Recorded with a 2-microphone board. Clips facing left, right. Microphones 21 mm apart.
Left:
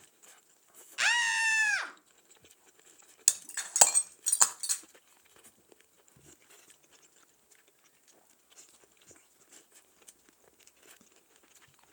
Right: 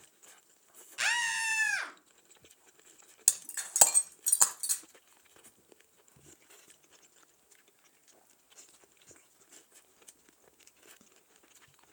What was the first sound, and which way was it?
A scream, 15° left (ahead or behind).